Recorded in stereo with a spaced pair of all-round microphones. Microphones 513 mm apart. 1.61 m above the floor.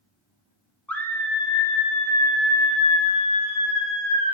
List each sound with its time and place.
0.9 s a scream: 5° left (ahead or behind), 1.0 m; by 4.3 s 15° left (ahead or behind), 3 m